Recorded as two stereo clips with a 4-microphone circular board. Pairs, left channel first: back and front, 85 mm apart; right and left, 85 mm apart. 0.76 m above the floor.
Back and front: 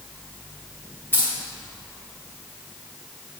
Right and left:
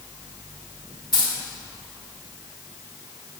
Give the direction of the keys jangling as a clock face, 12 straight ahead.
4 o'clock.